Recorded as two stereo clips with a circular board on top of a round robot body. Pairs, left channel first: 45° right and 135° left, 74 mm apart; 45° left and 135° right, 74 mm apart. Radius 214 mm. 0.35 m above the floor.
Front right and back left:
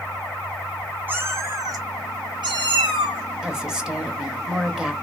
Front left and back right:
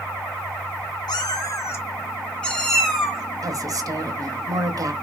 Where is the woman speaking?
145° right, 1.4 m.